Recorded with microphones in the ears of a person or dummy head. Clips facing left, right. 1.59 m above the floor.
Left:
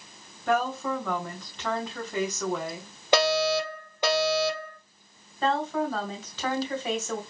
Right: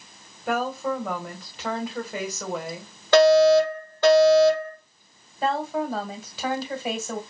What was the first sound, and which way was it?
A woman speaking, 5° right (ahead or behind).